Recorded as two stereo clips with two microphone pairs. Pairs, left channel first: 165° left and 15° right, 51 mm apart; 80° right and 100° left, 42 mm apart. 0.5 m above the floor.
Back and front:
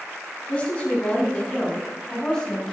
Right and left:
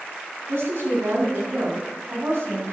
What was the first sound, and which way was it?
A woman speaking, 95° left.